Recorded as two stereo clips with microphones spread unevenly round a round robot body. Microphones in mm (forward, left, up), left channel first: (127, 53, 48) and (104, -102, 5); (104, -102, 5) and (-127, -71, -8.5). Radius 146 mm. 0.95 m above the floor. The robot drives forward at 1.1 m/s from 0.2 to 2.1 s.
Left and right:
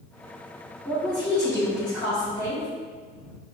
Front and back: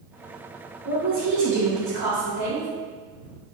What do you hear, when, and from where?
0.8 s a woman speaking: 150° left, 2.0 m; by 2.7 s 165° left, 3 m